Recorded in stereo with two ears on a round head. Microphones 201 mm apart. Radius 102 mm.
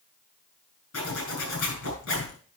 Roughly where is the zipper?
Left.